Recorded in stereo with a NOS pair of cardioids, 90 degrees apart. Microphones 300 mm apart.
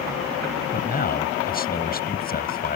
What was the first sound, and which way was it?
A man speaking, 30° left.